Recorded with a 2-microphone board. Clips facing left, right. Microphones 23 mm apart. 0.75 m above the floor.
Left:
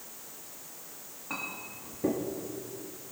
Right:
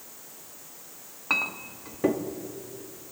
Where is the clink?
65° right (ahead or behind), 0.8 m.